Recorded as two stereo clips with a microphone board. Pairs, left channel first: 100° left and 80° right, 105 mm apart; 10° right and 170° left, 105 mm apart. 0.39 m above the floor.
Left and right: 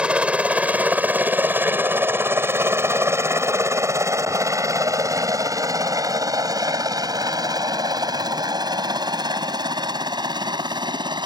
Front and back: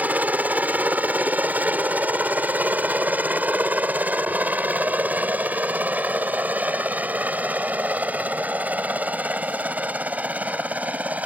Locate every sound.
0.0 s a helicopter: 140° right; by 11.3 s 115° right